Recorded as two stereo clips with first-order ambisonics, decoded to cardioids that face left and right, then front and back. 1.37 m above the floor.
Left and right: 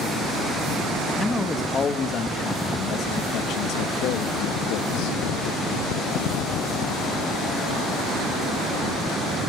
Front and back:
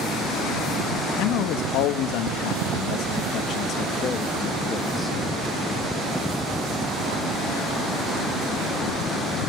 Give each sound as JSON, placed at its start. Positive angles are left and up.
{"t": 1.2, "sound": "a man speaking", "azimuth_deg": 15, "distance_m": 2.0}